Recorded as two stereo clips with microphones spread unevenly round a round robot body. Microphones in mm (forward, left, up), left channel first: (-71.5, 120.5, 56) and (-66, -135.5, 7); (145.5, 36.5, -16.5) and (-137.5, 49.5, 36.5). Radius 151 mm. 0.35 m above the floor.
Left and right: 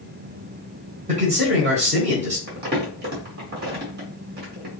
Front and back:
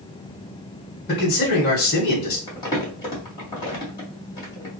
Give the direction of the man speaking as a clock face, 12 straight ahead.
1 o'clock.